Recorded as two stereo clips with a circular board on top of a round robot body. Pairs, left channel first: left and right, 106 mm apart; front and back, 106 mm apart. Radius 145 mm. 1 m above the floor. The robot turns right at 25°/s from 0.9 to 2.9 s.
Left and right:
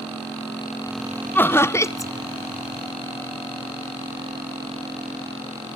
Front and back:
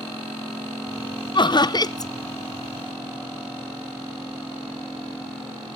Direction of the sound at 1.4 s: 25° left.